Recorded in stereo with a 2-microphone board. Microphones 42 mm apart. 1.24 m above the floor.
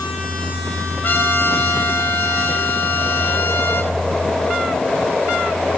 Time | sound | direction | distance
1.0 | a trumpet | 55° left (ahead or behind) | 3.5 m